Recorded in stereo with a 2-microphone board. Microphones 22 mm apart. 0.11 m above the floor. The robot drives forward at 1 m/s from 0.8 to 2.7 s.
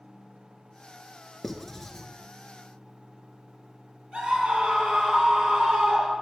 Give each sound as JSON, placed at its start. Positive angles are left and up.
{"t": 1.4, "sound": "writing", "side_deg": 10, "distance_m": 1.4}
{"t": 4.1, "sound": "a scream", "side_deg": -55, "distance_m": 3.0}